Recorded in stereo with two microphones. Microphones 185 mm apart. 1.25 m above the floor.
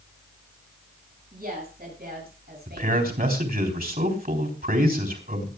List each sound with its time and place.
1.3 s a woman speaking: 50° right (ahead or behind), 7.5 m; by 3.1 s 65° right (ahead or behind), 8 m
2.7 s a man speaking: 55° right (ahead or behind), 4 m